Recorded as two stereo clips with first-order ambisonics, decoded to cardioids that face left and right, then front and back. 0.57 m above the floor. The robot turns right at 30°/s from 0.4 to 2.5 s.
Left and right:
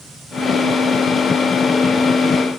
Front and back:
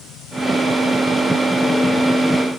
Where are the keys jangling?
I don't hear keys jangling.